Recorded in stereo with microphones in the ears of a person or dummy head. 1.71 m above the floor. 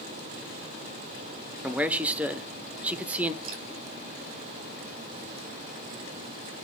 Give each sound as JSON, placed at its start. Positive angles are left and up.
{"t": 1.6, "sound": "a man speaking", "side_deg": 0, "distance_m": 0.8}
{"t": 3.4, "sound": "dripping", "side_deg": -30, "distance_m": 1.7}